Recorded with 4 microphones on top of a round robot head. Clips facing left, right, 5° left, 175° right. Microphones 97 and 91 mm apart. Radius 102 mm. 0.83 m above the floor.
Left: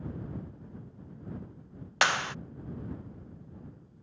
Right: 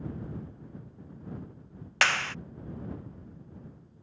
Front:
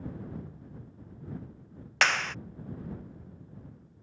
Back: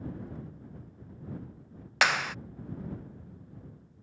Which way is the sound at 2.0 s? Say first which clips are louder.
Left 1 dB, back 1 dB; 115° left.